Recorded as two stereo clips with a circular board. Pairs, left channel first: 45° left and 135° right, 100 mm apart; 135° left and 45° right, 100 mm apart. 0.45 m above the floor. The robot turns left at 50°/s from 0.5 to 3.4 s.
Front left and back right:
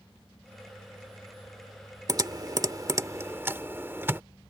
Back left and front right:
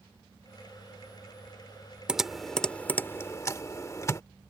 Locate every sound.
2.1 s typing on a keyboard: 120° right; by 4.2 s 175° left